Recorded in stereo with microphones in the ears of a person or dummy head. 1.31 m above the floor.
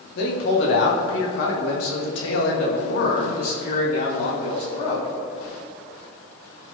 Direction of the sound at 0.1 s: 70° left (ahead or behind).